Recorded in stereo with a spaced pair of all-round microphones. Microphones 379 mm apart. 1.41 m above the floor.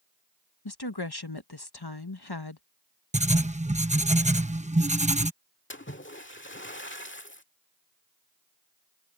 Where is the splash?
30° left (ahead or behind).